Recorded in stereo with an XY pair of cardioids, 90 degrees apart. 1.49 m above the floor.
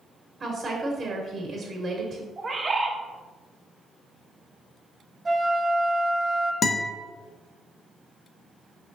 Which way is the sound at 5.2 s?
25° right.